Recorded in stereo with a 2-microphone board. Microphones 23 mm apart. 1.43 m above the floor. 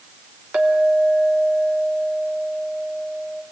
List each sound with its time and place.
0.5 s a clink: 70° right (ahead or behind), 3 m